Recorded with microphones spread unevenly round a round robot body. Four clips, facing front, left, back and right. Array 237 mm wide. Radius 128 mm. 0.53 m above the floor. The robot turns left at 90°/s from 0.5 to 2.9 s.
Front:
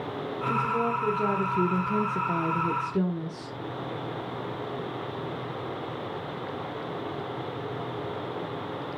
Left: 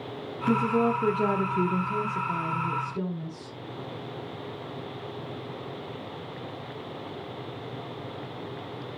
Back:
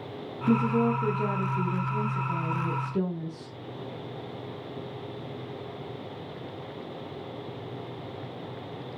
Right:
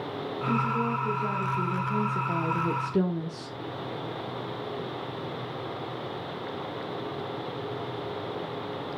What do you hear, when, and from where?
0.5 s a woman speaking: 135° left, 1.4 m; by 3.6 s 80° right, 1.4 m